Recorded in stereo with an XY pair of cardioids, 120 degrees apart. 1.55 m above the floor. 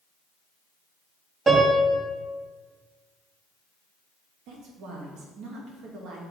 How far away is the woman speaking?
About 1.7 m.